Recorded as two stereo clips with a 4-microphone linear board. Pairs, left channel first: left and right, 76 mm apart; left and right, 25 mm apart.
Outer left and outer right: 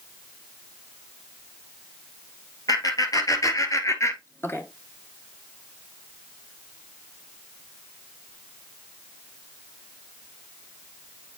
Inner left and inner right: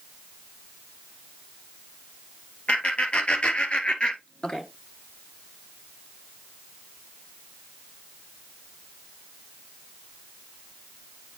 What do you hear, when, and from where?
2.7 s laughter: 55° left (ahead or behind), 2 m; by 4.6 s 30° left (ahead or behind), 1.5 m